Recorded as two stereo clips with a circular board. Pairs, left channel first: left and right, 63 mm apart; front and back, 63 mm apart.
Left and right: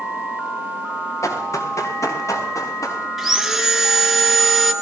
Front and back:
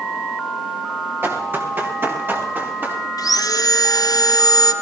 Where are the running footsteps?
125° left, 7 m.